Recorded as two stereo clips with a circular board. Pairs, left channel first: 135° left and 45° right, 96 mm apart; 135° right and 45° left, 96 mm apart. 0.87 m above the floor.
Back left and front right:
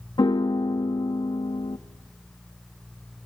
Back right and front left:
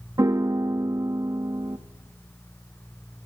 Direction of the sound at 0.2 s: 95° left.